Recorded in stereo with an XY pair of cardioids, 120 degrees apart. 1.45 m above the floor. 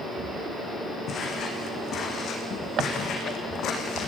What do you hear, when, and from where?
1.1 s footsteps: 50° left, 6.5 m; by 4.1 s 65° left, 6 m